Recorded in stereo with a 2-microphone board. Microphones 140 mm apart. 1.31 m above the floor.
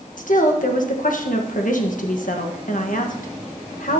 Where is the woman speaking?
75° left (ahead or behind), 1.5 m.